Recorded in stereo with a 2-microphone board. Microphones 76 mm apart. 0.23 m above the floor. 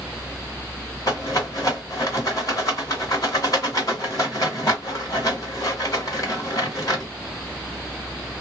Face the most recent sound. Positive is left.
turn(degrees=50)  # may be behind; listen again after turning